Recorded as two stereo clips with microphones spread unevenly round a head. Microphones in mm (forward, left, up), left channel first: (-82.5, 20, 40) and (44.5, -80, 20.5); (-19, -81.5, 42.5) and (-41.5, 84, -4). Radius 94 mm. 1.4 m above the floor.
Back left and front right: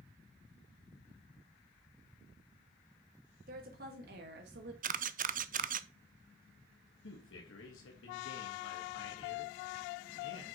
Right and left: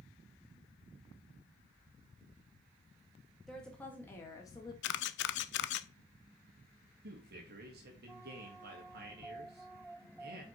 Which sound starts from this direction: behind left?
A man speaking, at 7.0 s.